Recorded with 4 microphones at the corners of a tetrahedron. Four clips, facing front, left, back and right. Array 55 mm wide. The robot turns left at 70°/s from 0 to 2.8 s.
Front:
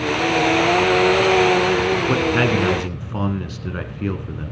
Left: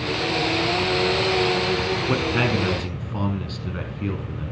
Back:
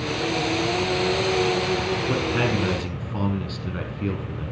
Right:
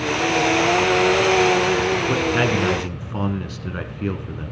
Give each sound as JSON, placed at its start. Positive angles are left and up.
{"t": 2.1, "sound": "a man speaking", "azimuth_deg": 10, "distance_m": 1.2}